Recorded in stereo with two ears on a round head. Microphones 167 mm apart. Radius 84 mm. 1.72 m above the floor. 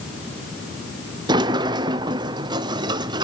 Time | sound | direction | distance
1.3 | a sliding door | 20° right (ahead or behind) | 0.8 m